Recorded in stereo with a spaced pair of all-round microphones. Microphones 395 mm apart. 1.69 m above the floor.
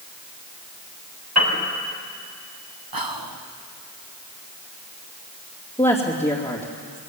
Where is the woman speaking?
15° left (ahead or behind), 3 m.